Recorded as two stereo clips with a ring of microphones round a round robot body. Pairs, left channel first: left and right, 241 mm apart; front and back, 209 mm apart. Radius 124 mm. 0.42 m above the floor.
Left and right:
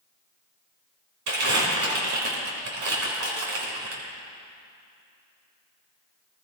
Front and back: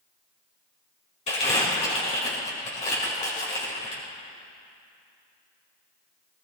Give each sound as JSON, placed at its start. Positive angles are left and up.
{"t": 1.3, "sound": "crumpling", "azimuth_deg": -65, "distance_m": 3.5}